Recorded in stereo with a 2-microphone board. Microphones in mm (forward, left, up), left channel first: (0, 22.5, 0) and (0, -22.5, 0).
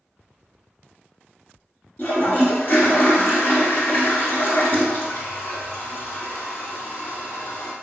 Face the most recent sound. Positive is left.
turn(degrees=45)  # may be behind; listen again after turning